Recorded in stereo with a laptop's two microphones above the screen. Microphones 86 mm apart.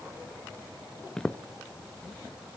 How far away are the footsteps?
About 0.9 m.